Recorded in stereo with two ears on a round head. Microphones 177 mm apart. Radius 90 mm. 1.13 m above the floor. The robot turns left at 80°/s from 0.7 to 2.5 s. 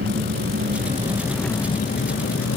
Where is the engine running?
125° right; by 2.6 s 90° left.